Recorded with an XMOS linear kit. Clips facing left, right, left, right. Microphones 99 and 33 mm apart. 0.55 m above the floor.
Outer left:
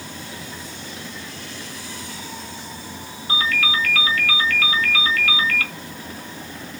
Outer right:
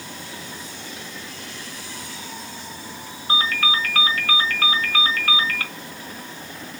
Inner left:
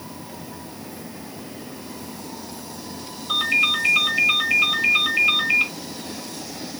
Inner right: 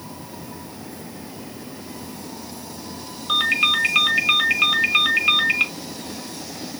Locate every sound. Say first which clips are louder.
3.3 s a ringtone: outer right 1 dB, inner right 1 dB; 45° right (ahead or behind), 1.2 m